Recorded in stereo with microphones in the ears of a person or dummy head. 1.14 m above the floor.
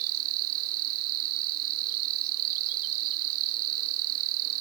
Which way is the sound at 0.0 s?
85° right.